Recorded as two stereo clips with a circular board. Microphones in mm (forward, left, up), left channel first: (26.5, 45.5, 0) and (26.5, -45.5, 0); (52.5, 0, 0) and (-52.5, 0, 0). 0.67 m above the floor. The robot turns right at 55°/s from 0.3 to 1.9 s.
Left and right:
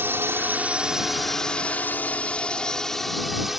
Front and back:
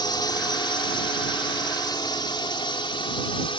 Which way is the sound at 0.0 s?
30° right.